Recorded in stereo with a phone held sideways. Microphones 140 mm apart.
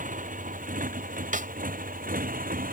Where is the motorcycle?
70° right (ahead or behind); by 2.7 s 85° right.